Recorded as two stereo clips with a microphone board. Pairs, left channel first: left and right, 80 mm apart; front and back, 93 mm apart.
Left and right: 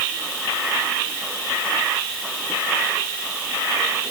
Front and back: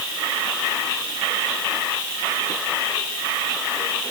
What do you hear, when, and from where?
Only background noise.